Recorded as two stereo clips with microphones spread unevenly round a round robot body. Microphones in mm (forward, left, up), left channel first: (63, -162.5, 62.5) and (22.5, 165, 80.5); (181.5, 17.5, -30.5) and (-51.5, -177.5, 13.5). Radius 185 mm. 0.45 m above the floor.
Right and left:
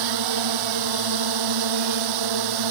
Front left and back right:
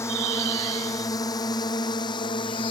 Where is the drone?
125° left; by 2.7 s 120° left.